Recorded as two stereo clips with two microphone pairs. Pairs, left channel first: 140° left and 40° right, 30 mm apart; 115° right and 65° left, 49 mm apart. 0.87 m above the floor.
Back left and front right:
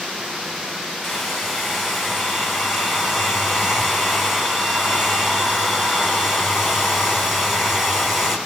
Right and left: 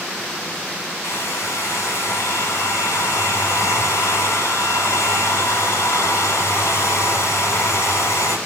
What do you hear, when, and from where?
1.0 s a hair dryer: 120° right, 8.5 m